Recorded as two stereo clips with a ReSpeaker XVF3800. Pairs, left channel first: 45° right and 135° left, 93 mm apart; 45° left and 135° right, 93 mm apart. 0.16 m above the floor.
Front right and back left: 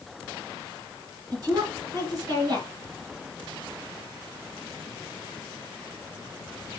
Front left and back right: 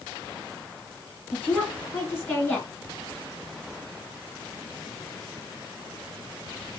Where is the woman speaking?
105° left, 1.5 m.